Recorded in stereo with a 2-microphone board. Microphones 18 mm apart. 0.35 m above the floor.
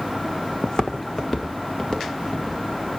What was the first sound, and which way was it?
Footsteps, 45° left (ahead or behind).